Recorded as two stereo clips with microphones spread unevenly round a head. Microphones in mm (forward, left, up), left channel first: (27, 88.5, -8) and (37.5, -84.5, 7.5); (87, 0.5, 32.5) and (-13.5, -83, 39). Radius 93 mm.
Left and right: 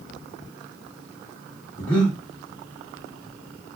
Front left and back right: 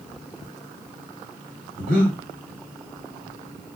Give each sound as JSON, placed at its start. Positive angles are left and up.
{"t": 1.8, "sound": "breathing", "azimuth_deg": 180, "distance_m": 1.3}